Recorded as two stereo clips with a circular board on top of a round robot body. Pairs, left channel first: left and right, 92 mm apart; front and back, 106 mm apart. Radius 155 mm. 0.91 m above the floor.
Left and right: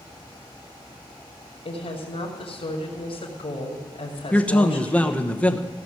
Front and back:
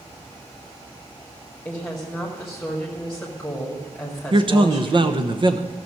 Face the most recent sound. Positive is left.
turn(degrees=165)